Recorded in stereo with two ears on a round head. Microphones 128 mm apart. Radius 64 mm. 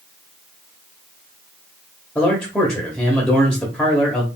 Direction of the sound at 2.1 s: 5° left (ahead or behind).